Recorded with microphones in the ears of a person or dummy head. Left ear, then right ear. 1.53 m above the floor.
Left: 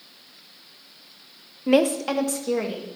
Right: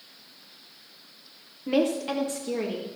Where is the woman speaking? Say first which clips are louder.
Left 5 dB; 35° left (ahead or behind), 0.9 m; by 2.9 s 40° left (ahead or behind), 2.5 m.